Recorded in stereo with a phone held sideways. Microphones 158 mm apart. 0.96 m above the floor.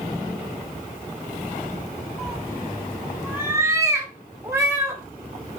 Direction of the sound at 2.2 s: Centre (ahead or behind).